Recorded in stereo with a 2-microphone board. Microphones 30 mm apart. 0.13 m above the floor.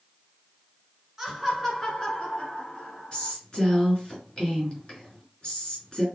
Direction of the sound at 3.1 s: 30° left (ahead or behind).